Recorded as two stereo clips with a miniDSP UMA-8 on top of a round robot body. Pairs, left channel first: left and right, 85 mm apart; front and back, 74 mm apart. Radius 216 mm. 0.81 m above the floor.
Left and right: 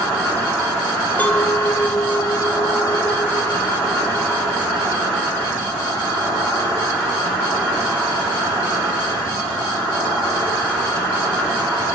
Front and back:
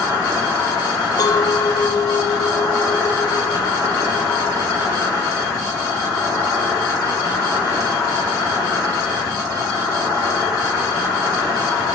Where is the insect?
30° left, 4.5 m.